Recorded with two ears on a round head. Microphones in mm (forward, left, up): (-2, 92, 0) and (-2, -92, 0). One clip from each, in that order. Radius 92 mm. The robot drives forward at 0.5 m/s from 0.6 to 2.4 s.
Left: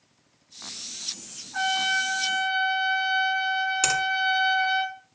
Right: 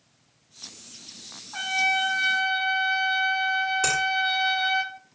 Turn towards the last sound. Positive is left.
turn(degrees=50)  # may be behind; listen again after turning